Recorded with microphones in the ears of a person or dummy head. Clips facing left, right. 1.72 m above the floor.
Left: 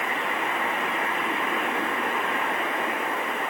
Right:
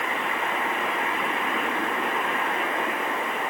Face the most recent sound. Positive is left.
No sound to turn to.